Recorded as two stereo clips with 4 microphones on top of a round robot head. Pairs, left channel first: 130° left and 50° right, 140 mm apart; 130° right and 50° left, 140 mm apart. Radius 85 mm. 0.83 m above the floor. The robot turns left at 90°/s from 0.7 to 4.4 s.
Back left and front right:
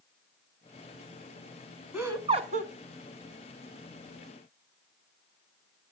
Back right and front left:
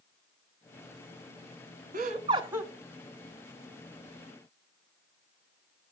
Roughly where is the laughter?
Ahead left.